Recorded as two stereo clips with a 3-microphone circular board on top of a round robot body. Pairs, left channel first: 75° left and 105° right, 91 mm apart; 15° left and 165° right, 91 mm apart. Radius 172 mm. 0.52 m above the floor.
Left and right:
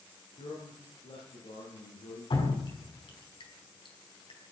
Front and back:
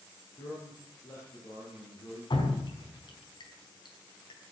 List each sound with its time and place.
0.4 s a man speaking: 70° left, 9 m; by 2.2 s 65° left, 10 m
2.3 s dripping: 50° left, 4.5 m